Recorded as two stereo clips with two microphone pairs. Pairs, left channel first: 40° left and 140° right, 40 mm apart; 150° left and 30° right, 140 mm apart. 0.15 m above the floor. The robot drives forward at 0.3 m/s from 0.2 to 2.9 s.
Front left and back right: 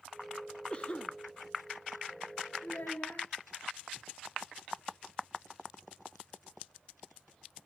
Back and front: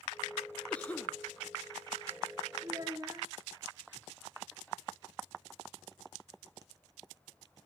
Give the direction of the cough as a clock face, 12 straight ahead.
9 o'clock.